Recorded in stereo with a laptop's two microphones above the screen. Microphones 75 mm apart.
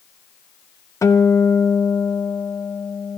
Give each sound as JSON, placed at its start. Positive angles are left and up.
{"t": 1.0, "sound": "a guitar", "side_deg": 45, "distance_m": 0.9}